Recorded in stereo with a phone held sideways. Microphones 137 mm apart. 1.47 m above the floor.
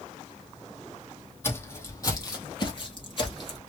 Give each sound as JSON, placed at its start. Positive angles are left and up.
{"t": 1.4, "sound": "footsteps", "side_deg": 20, "distance_m": 2.5}